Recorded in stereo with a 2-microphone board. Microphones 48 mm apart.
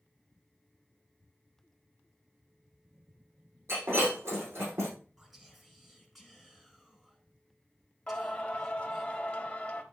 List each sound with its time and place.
3.7 s breaking glass: 70° right (ahead or behind), 5.5 m
5.2 s whispering: centre (ahead or behind), 3.5 m
8.1 s singing: 25° left (ahead or behind), 1.5 m